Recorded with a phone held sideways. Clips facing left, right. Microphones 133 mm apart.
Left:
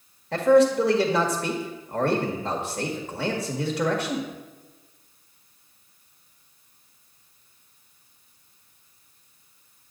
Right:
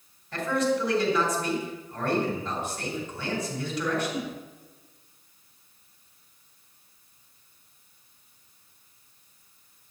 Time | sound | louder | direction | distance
0.3 | a man speaking | left 9 dB | 70° left (ahead or behind) | 1.6 m